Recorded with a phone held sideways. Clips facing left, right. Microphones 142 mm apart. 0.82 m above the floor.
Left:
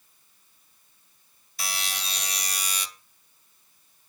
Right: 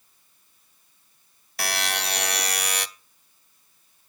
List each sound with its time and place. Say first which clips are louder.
1.6 s a buzzer: right 7 dB; 70° right (ahead or behind), 0.5 m